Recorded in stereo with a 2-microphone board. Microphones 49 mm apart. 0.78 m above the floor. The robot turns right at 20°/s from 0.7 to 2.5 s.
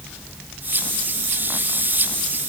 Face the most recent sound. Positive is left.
No sound to turn to.